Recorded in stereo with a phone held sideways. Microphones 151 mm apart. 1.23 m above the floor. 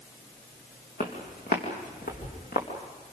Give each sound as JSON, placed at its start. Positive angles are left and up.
{"t": 1.0, "sound": "footsteps", "side_deg": 70, "distance_m": 4.0}